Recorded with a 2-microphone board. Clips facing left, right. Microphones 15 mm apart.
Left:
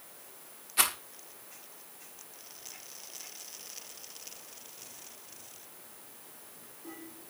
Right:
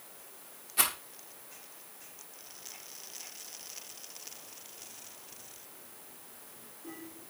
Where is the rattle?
10° left (ahead or behind), 1.3 m.